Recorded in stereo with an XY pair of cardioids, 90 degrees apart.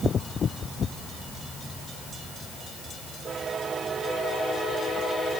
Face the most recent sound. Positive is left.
No sound to turn to.